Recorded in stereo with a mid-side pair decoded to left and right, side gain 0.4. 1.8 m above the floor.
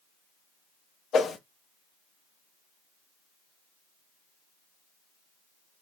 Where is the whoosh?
65° left, 0.7 m.